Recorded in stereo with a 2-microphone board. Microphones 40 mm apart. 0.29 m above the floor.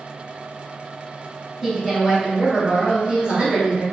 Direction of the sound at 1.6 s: 5° right (ahead or behind).